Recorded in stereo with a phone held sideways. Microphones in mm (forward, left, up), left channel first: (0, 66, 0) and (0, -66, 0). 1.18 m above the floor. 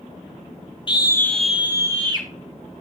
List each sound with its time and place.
0.9 s a scream: 35° left (ahead or behind), 1.2 m; by 2.3 s 35° right (ahead or behind), 1.7 m